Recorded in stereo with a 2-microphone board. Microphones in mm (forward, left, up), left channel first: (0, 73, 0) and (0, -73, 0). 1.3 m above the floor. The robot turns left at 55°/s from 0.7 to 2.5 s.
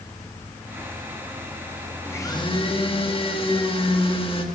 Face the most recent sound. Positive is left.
turn(degrees=40)  # may be behind; listen again after turning